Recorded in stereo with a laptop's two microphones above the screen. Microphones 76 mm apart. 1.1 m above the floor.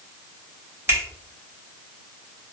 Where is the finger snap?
35° right (ahead or behind), 0.9 m.